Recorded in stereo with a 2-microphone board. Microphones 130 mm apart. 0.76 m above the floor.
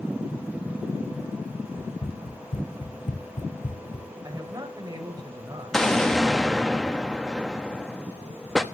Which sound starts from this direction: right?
A man speaking, at 4.2 s.